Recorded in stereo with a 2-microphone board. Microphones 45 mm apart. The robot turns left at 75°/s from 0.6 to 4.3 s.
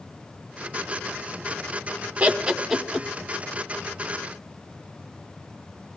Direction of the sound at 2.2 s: 25° right (ahead or behind).